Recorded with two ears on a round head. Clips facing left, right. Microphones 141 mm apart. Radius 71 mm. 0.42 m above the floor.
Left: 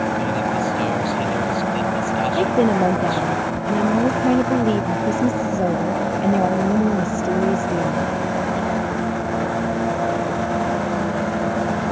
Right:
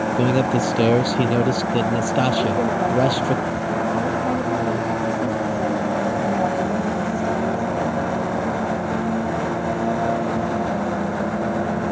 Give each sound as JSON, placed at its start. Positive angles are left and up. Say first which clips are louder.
{"t": 0.2, "sound": "a man speaking", "louder": "right 3 dB", "side_deg": -80}
{"t": 2.4, "sound": "a woman speaking", "louder": "left 3 dB", "side_deg": 40}